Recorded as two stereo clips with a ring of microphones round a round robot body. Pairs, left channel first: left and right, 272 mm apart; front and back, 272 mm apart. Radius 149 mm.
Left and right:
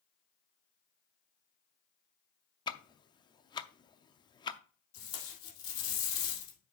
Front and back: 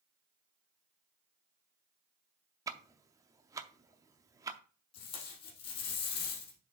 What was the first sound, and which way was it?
Ticking, 130° left.